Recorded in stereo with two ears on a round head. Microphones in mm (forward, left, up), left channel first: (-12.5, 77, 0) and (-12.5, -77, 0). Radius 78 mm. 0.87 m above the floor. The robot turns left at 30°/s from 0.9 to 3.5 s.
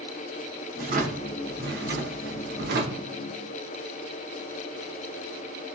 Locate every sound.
0.8 s a drawer: 50° right, 0.8 m; by 3.1 s 115° right, 0.8 m